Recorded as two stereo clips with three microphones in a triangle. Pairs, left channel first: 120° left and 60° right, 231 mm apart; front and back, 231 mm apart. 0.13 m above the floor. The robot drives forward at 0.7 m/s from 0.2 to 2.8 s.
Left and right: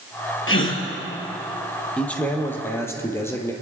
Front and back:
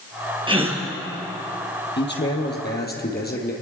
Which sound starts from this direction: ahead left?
A man speaking, at 2.0 s.